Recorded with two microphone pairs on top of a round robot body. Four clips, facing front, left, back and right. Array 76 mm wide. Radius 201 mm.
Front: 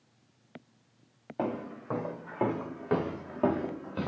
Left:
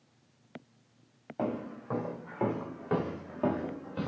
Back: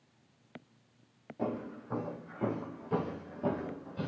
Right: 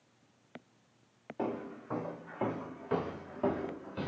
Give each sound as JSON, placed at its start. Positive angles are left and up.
{"t": 1.4, "sound": "footsteps", "azimuth_deg": 20, "distance_m": 4.0}